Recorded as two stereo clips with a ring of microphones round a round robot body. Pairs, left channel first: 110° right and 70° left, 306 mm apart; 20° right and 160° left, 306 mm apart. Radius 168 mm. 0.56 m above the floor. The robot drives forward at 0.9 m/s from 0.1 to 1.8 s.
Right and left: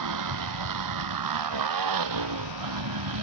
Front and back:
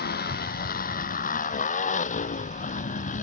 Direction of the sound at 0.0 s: 40° left.